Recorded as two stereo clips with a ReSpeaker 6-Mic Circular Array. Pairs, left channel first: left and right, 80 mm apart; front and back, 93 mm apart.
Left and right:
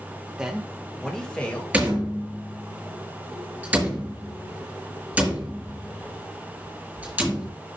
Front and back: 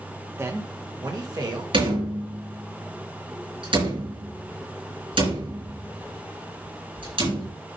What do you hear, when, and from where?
0.4 s a man speaking: 155° right, 1.3 m; by 1.6 s 160° left, 2.0 m
1.7 s a door slam: 165° right, 4 m